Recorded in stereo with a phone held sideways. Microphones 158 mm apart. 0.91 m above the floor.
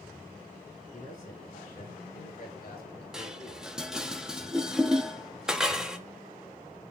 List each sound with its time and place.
0.9 s a man speaking: 55° left (ahead or behind), 9 m; by 4.1 s 70° left (ahead or behind), 8.5 m
3.1 s dishes clattering: 5° right (ahead or behind), 1.1 m